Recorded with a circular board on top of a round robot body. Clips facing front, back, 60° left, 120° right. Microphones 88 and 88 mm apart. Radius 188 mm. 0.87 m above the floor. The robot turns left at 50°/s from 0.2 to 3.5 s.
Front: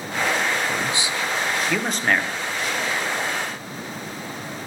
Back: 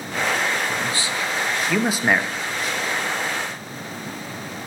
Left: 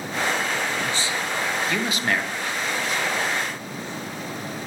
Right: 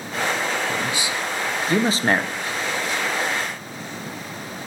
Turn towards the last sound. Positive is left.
turn(degrees=180)